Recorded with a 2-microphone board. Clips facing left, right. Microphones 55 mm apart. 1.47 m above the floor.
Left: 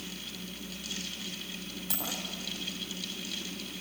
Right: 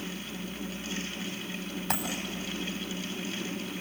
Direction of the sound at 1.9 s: 50° right (ahead or behind).